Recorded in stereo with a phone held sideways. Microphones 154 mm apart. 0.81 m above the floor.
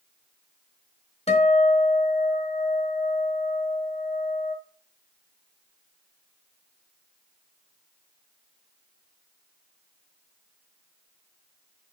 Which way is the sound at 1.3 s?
45° left (ahead or behind).